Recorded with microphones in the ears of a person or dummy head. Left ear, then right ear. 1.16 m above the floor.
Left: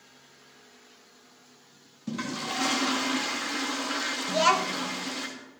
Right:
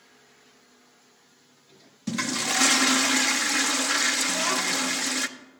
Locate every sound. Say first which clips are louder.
2.1 s a toilet flushing: right 6 dB; 55° right (ahead or behind), 0.7 m
4.3 s a child speaking: left 2 dB; 30° left (ahead or behind), 0.8 m